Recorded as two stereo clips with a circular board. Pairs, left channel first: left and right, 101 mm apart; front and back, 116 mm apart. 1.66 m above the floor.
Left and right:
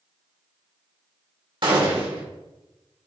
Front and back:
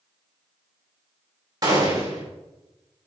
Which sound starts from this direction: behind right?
A gunshot, at 1.6 s.